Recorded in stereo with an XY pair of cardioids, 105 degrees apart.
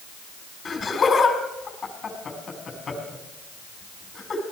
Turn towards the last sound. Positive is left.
turn(degrees=40)